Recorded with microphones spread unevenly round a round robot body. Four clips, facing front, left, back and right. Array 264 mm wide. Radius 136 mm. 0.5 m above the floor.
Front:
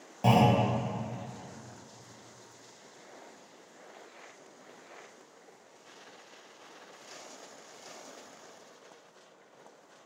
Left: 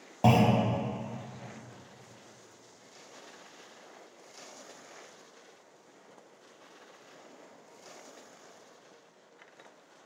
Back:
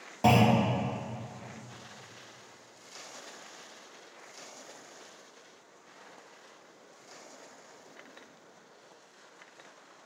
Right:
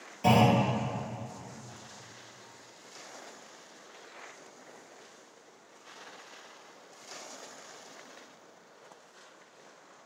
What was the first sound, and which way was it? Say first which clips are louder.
A clunk: even, back 1 dB; 105° left.